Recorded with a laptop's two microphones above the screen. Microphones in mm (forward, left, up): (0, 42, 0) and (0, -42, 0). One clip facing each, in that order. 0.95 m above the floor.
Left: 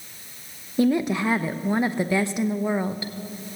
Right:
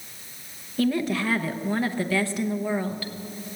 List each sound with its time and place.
0.8 s a woman speaking: 20° left (ahead or behind), 0.7 m